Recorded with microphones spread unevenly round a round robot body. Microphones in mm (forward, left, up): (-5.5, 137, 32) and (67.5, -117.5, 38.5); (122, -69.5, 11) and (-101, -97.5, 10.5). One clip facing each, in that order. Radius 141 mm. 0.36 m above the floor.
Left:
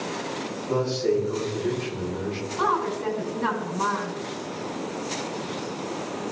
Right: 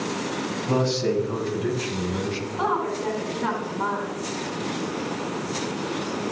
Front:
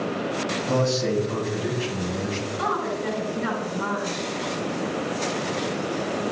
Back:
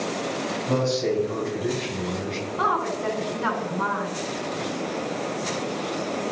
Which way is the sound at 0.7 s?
75° right.